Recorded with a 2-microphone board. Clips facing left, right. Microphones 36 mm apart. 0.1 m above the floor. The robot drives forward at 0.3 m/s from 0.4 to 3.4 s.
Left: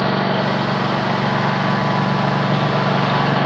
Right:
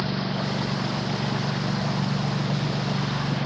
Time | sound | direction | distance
0.0 | a lawn mower | 55° left (ahead or behind) | ?